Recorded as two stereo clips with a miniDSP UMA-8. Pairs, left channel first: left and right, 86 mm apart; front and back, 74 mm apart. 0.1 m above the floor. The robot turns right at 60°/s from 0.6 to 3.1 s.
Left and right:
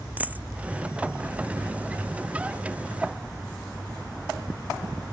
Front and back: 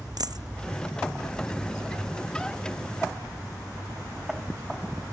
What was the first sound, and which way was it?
A dropped coin, 160° right.